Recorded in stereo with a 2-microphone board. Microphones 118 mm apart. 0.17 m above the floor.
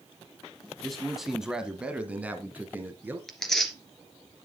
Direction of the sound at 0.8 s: 5° left (ahead or behind).